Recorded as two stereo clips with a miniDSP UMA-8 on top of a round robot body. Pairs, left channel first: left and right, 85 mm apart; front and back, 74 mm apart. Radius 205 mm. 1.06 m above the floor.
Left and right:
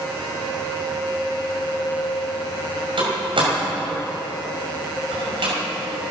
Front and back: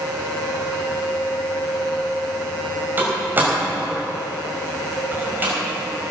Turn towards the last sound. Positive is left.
turn(degrees=-115)